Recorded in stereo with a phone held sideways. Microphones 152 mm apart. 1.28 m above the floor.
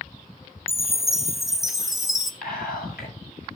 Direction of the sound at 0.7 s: Centre (ahead or behind).